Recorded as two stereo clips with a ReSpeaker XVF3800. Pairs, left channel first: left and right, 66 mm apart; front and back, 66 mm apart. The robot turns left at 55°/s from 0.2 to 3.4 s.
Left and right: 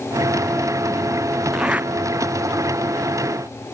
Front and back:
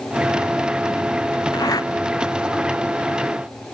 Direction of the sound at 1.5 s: 5° right.